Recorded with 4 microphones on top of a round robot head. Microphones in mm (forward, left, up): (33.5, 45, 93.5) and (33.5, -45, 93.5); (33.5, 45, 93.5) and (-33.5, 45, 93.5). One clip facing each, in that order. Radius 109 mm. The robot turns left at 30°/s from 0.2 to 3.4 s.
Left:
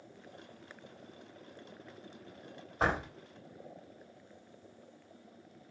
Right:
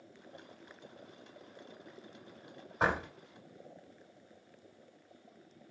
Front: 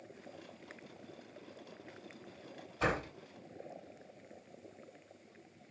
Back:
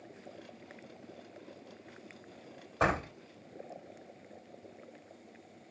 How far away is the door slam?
About 3 m.